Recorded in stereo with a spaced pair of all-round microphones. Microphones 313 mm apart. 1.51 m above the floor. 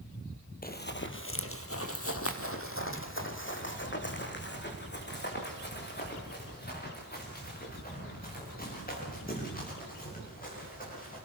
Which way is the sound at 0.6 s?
25° left (ahead or behind).